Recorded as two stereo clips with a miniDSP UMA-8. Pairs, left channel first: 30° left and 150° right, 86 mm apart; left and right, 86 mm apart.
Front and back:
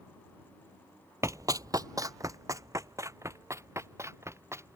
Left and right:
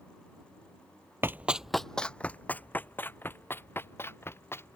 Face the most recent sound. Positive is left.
turn(degrees=150)